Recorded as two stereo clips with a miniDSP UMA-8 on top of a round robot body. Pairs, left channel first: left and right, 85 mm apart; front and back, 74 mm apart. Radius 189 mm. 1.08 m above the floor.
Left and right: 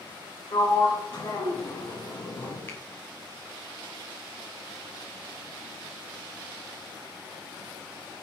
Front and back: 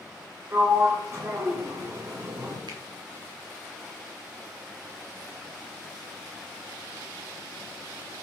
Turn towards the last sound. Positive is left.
turn(degrees=155)